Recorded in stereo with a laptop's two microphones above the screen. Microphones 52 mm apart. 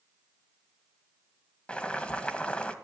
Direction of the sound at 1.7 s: 20° left (ahead or behind).